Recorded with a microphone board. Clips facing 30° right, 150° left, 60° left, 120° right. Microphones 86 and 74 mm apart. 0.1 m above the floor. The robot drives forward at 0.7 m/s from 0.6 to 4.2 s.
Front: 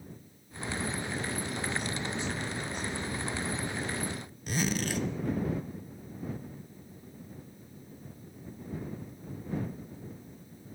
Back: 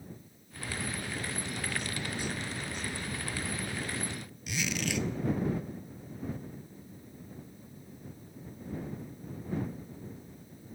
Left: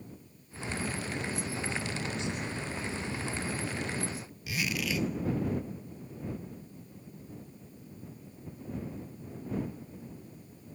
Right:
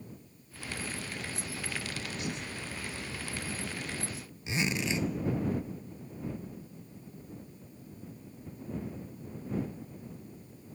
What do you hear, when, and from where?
4.5 s a zipper: 65° right, 0.7 m